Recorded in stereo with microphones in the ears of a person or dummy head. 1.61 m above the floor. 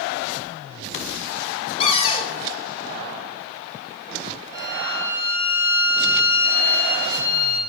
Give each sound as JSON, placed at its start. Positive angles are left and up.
{"t": 1.8, "sound": "a cupboard door", "side_deg": 25, "distance_m": 0.7}
{"t": 4.5, "sound": "a violin", "side_deg": 20, "distance_m": 2.0}